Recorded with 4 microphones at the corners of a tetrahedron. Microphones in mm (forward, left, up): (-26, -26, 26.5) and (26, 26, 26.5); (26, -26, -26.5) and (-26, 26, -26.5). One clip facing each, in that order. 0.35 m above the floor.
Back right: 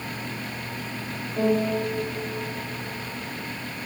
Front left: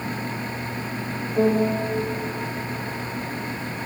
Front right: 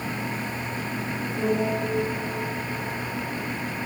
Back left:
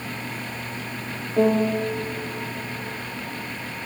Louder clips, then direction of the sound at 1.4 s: Front left 3 dB, back left 6 dB; 120° left.